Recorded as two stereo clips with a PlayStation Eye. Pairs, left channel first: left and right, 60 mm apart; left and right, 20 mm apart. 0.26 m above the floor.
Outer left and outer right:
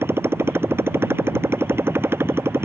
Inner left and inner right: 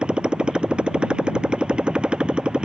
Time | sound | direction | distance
0.0 | a motorcycle | 45° right (ahead or behind) | ?